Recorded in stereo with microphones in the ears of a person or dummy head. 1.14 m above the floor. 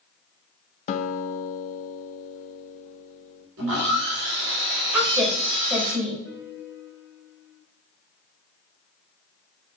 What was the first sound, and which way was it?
A guitar, 45° left (ahead or behind).